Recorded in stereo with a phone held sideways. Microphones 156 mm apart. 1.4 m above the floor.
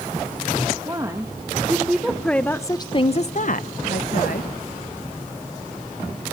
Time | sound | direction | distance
0.8 | a woman speaking | 25° right (ahead or behind) | 2 m